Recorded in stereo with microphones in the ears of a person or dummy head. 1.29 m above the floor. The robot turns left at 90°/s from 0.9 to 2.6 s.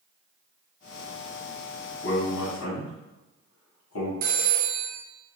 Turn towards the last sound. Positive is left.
turn(degrees=-50)  # may be behind; listen again after turning